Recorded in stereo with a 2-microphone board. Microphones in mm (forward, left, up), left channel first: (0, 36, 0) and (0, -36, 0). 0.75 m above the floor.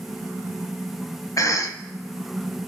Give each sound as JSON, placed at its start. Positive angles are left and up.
{"t": 1.4, "sound": "a cough", "side_deg": 50, "distance_m": 0.8}